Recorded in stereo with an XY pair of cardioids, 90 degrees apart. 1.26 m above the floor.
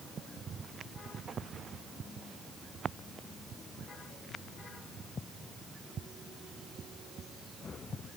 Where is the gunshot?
I don't hear a gunshot.